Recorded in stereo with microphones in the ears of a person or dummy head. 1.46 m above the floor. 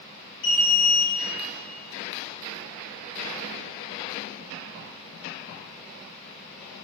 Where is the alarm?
75° left (ahead or behind), 3 m.